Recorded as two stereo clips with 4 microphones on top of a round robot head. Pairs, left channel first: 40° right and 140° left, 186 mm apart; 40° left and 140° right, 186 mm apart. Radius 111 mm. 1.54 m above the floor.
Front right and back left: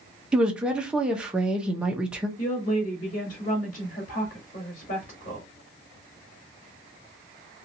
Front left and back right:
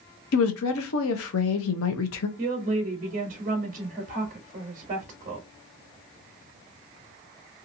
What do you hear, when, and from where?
0.3 s a woman speaking: 55° left, 0.7 m
2.4 s a woman speaking: 90° right, 1.0 m